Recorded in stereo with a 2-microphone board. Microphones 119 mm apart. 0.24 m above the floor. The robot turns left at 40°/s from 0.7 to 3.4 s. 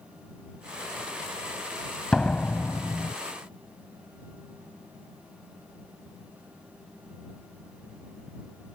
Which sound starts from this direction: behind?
A door slam, at 2.1 s.